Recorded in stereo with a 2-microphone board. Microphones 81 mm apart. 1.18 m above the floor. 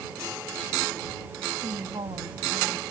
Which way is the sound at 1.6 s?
85° right.